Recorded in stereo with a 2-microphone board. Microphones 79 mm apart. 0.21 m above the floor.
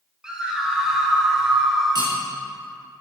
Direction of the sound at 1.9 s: 65° right (ahead or behind).